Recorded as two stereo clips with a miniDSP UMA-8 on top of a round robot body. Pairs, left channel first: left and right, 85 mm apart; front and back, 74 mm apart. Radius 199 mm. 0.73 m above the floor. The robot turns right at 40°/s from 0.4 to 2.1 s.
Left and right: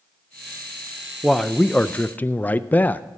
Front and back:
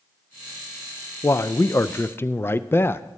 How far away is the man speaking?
About 0.5 m.